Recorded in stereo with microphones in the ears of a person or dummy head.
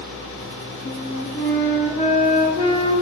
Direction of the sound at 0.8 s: 50° left (ahead or behind).